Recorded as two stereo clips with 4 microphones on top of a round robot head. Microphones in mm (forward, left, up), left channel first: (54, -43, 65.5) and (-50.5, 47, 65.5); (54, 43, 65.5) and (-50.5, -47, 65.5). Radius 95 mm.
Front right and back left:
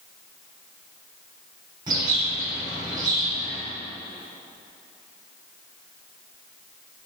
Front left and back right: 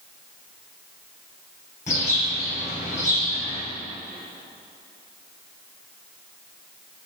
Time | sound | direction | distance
1.9 | a bird | 80° left | 2.5 m